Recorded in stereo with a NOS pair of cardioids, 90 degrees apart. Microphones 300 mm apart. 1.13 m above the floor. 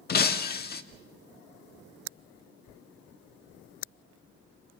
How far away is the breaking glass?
About 1.3 m.